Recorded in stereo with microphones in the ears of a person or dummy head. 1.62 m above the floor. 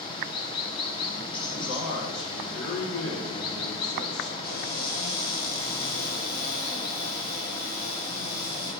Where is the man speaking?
70° left (ahead or behind), 1.4 m.